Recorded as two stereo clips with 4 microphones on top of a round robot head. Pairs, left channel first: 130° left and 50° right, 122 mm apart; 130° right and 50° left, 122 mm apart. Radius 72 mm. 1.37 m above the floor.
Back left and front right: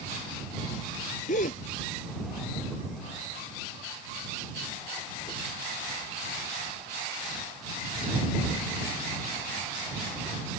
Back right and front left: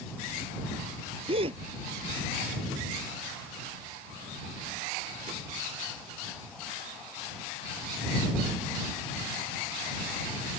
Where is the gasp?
95° left.